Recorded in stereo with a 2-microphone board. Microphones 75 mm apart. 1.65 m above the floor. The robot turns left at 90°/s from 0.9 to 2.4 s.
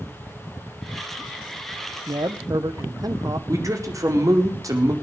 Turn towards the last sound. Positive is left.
turn(degrees=-50)  # may be behind; listen again after turning